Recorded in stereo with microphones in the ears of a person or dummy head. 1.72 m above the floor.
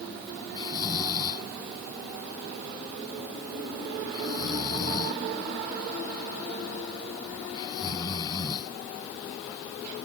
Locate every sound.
0.6 s snoring: 30° left (ahead or behind)